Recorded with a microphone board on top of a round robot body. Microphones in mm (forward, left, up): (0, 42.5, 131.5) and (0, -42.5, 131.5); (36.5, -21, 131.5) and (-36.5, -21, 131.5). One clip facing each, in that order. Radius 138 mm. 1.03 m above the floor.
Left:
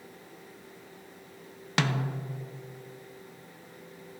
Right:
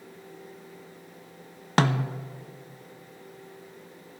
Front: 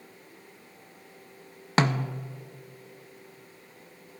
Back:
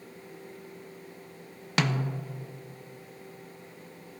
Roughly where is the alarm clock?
No alarm clock in this recording.